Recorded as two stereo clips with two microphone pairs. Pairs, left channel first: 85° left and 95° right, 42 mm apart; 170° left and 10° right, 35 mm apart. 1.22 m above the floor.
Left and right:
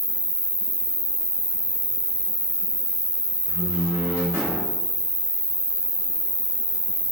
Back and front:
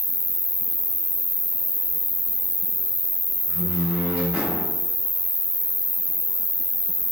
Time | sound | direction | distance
0.0 | an insect | 160° right | 0.8 m
3.5 | a door slam | 75° right | 5 m